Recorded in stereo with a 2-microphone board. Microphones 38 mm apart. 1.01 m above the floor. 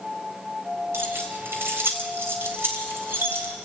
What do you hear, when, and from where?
0.9 s keys jangling: 90° right, 3.5 m